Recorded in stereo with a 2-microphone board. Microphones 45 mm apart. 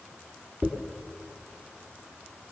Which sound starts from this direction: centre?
A dropped coin, at 0.6 s.